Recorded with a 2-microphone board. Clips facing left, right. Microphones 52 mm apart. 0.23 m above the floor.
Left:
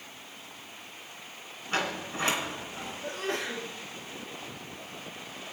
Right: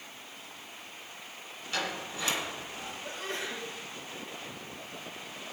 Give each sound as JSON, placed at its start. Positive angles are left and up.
{"t": 1.7, "sound": "a sliding door", "side_deg": 40, "distance_m": 2.5}
{"t": 3.0, "sound": "a sneeze", "side_deg": 80, "distance_m": 5.5}